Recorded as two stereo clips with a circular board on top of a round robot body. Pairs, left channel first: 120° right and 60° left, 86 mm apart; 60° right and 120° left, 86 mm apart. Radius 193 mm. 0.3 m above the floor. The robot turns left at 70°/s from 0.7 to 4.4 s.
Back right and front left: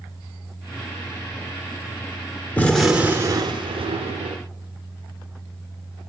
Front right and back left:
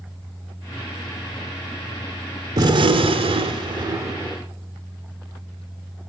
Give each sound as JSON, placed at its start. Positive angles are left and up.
{"t": 2.6, "sound": "a gunshot", "azimuth_deg": 170, "distance_m": 1.2}